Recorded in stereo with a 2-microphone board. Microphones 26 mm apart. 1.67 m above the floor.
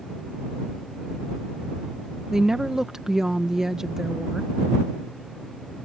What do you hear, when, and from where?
2.3 s a woman speaking: 20° right (ahead or behind)